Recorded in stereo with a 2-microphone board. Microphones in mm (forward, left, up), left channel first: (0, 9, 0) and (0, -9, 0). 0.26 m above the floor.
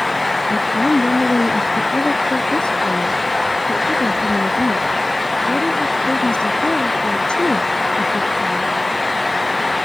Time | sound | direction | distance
0.5 | a woman speaking | 60° left (ahead or behind) | ?